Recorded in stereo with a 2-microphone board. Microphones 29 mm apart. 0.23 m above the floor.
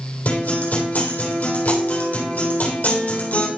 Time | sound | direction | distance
0.2 | a guitar | 70° left (ahead or behind) | 3.5 m